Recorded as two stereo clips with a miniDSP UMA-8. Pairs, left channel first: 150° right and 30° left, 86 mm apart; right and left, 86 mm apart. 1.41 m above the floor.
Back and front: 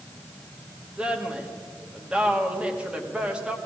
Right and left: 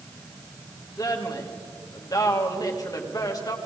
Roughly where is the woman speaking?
Ahead right.